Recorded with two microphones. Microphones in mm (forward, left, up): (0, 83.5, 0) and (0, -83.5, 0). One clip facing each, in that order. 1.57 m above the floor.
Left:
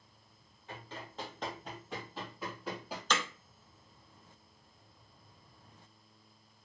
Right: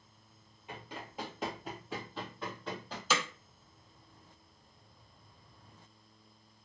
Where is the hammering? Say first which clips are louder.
Right 1 dB; 5° right (ahead or behind), 0.7 m.